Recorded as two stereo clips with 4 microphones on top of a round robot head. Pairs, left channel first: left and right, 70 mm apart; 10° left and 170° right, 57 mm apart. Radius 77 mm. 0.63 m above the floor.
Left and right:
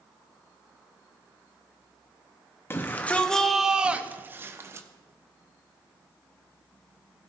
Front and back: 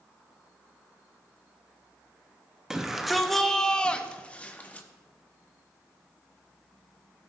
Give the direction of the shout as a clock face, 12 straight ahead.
8 o'clock.